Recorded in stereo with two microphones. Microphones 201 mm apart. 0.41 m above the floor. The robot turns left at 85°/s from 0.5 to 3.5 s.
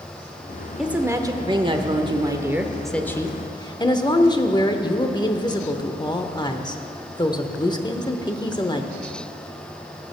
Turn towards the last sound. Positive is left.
turn(degrees=20)  # may be behind; listen again after turning